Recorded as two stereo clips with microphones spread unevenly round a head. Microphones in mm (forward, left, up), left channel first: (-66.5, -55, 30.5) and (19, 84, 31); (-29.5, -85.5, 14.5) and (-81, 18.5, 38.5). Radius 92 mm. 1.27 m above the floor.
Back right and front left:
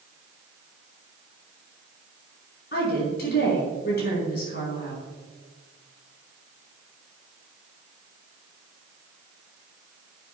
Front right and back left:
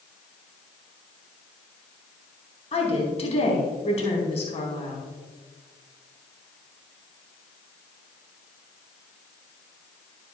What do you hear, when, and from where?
2.7 s a woman speaking: 90° right, 4.5 m